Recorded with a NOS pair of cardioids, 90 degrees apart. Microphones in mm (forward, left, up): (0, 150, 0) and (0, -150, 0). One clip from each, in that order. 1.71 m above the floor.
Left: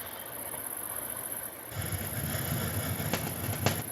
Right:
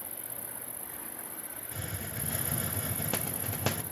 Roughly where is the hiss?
Ahead.